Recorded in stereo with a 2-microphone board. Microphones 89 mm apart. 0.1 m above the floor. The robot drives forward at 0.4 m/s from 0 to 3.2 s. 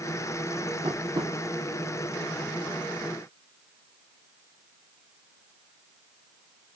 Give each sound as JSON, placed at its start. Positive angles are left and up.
{"t": 0.8, "sound": "tapping", "side_deg": -55, "distance_m": 3.5}